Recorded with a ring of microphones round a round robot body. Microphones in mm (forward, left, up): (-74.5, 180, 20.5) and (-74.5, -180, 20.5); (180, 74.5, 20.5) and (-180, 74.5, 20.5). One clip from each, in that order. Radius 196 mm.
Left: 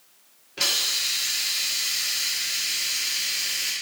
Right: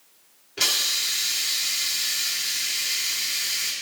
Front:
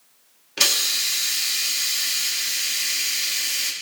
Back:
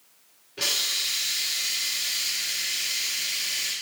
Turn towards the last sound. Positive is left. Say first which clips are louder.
# right 1 dB, front 5 dB
turn(degrees=-5)